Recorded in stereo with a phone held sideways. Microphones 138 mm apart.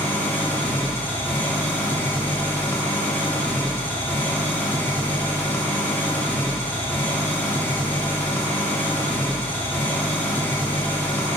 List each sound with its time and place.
0.0 s an engine running: 15° left (ahead or behind), 1.8 m